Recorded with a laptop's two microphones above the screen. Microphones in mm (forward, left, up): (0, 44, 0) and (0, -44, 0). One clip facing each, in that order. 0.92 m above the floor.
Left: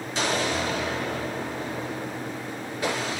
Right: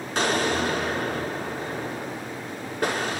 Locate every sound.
0.1 s an explosion: 55° right (ahead or behind), 4.5 m